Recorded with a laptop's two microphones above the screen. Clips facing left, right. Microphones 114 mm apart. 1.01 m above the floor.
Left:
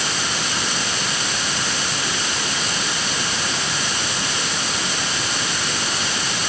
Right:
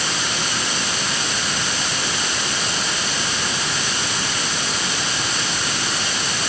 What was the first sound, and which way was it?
Only background noise.